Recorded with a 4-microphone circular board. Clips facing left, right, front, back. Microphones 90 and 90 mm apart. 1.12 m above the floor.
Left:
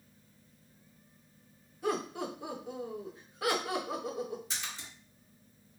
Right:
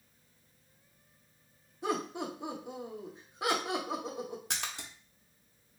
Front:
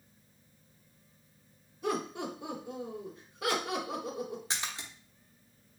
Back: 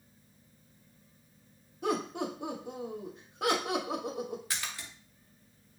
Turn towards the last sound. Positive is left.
turn(degrees=-65)